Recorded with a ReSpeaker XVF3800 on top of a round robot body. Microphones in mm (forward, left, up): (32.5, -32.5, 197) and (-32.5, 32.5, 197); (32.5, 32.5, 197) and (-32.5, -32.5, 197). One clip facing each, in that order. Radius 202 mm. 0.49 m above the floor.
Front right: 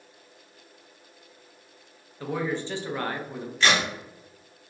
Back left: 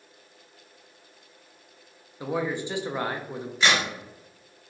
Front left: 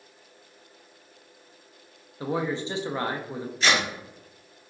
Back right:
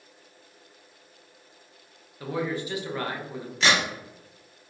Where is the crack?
150° right, 1.3 m.